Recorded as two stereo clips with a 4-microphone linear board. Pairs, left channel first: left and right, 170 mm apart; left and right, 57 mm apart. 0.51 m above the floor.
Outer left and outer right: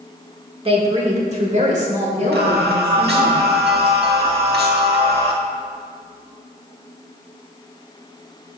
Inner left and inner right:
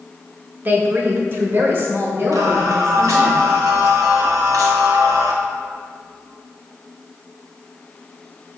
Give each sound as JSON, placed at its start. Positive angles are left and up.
{"t": 0.7, "sound": "a woman speaking", "side_deg": -35, "distance_m": 0.9}
{"t": 2.3, "sound": "singing", "side_deg": -75, "distance_m": 0.9}